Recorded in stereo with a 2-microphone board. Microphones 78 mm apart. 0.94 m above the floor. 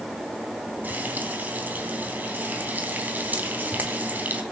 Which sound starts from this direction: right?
Frying, at 0.8 s.